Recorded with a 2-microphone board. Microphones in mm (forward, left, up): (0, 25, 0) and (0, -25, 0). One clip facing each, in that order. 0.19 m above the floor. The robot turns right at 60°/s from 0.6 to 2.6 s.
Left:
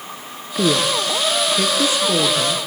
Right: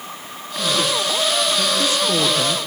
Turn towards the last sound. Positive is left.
turn(degrees=-160)